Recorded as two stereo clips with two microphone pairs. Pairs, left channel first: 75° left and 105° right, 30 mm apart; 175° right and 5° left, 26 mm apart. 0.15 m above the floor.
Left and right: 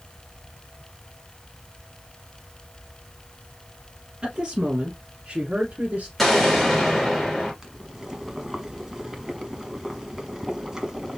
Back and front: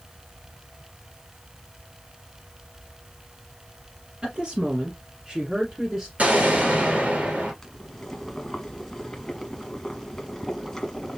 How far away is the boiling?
About 1.2 m.